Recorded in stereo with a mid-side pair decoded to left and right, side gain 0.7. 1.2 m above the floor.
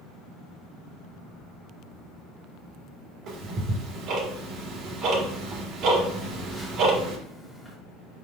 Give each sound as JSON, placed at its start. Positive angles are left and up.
{"t": 3.3, "sound": "ticking", "azimuth_deg": -50, "distance_m": 1.8}
{"t": 6.2, "sound": "a phone buzzing", "azimuth_deg": 5, "distance_m": 1.7}